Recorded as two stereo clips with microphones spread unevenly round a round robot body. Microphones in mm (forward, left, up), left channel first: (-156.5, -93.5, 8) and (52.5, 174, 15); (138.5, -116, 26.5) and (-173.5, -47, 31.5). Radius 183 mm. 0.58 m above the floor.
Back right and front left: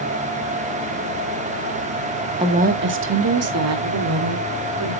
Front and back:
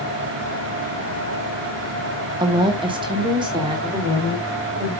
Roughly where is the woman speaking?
Left.